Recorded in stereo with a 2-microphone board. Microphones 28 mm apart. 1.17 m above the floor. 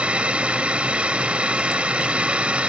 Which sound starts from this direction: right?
A drone, at 0.0 s.